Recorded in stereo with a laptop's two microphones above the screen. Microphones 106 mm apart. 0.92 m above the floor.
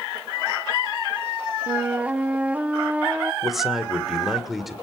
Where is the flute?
15° right (ahead or behind), 1.1 m.